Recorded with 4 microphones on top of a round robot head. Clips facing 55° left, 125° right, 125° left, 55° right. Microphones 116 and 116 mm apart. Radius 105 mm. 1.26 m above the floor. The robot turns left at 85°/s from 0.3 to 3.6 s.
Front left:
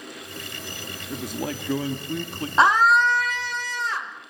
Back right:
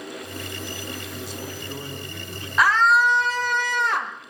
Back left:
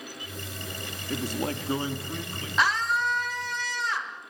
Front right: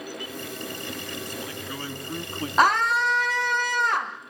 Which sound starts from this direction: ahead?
A scream, at 2.6 s.